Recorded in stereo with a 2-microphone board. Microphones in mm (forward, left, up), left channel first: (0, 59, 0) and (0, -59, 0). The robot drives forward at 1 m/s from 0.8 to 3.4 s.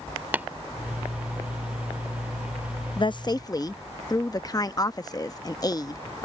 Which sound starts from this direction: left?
A woman speaking, at 3.0 s.